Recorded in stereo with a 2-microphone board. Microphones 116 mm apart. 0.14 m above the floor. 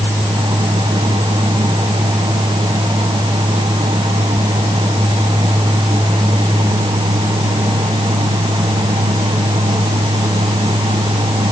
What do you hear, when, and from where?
Only background noise.